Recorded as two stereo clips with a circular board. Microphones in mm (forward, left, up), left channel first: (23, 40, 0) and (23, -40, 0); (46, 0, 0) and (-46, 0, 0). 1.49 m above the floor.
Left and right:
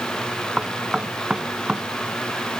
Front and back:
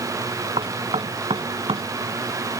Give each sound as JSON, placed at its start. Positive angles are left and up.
{"t": 0.6, "sound": "knocking", "azimuth_deg": -170}